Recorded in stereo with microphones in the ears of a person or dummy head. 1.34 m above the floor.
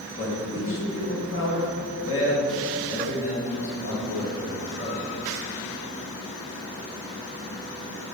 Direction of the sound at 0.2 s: 70° left (ahead or behind).